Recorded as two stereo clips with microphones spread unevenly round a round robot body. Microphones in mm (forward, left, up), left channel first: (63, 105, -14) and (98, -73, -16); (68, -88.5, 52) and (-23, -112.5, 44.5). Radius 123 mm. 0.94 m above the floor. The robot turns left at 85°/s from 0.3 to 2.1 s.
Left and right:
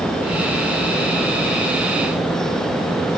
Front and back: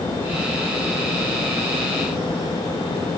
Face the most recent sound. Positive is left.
No sound to turn to.